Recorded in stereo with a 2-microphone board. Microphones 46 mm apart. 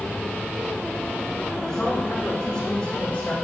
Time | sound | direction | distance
1.7 | a man speaking | 15° left (ahead or behind) | 8.5 m